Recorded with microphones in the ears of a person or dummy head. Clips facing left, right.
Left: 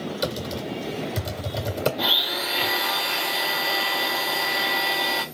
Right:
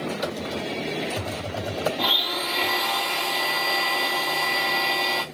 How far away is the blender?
About 1.1 m.